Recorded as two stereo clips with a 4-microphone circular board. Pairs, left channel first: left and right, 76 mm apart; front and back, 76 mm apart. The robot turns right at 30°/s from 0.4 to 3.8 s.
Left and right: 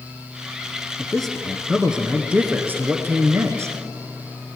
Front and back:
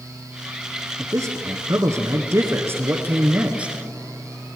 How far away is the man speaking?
About 1.5 m.